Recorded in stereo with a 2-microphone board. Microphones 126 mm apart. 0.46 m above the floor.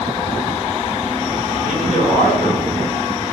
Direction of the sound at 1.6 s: 70° right (ahead or behind).